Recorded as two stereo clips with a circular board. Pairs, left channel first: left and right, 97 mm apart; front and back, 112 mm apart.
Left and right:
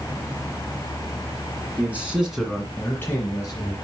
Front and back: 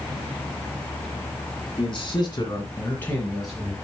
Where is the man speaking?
20° right, 2.5 m; by 3.7 s 100° left, 1.9 m.